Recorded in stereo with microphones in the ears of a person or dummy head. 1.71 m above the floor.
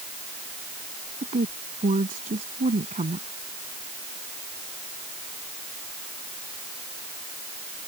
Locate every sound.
1.2 s a woman speaking: 30° right (ahead or behind)